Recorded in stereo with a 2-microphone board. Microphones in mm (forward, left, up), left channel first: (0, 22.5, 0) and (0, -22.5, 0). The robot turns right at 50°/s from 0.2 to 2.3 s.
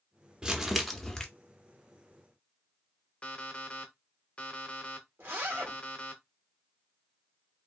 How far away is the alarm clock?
About 0.8 m.